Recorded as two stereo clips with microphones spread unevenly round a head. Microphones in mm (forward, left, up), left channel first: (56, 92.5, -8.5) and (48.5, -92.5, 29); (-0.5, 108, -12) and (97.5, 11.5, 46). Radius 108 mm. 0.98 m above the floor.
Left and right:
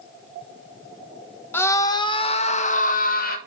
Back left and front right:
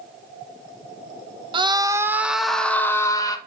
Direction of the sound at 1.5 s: 25° left.